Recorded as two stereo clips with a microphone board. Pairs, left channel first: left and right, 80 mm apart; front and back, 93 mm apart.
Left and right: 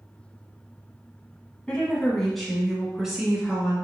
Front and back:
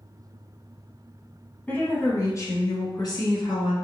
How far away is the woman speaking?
About 1.0 m.